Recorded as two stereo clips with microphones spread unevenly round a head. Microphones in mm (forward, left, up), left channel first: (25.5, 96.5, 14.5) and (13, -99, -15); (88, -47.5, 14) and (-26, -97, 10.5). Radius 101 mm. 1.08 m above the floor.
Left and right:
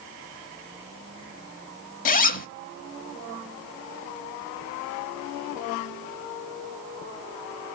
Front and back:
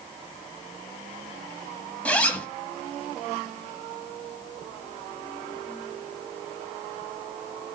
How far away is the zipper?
About 1.2 m.